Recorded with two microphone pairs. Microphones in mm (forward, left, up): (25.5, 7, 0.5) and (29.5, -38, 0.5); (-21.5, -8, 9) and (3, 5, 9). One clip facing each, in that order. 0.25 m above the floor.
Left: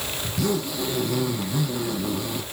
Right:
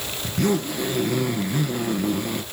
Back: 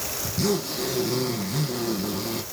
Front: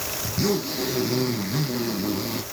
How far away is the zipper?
About 2.5 m.